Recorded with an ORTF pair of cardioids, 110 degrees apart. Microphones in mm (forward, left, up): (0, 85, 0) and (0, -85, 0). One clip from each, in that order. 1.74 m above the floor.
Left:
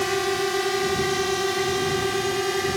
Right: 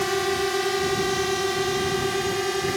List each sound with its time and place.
0.0 s a drone: straight ahead; by 2.8 s 5° left